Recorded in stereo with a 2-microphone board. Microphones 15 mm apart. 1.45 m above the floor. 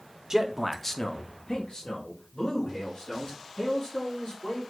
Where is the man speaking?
40° right (ahead or behind), 0.6 m; by 4.6 s 90° left, 3.5 m.